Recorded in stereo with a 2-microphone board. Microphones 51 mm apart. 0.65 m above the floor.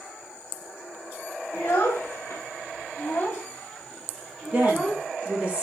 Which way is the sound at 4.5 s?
25° right (ahead or behind).